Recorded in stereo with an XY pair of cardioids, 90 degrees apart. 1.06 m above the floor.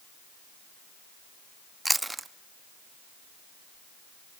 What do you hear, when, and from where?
1.9 s chewing: 15° right, 0.9 m